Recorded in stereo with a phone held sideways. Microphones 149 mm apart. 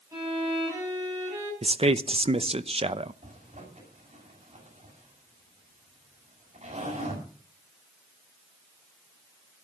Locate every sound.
0.1 s a violin: 20° right (ahead or behind), 9 m
1.6 s a man speaking: 40° right (ahead or behind), 0.7 m
3.2 s a zipper: 50° right (ahead or behind), 7 m